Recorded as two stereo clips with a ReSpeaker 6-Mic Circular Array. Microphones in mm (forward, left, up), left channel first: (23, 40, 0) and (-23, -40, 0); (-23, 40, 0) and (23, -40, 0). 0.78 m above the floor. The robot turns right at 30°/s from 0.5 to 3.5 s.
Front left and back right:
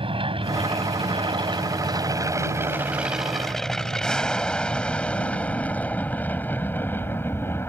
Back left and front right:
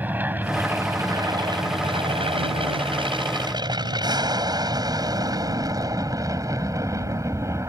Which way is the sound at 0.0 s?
130° right.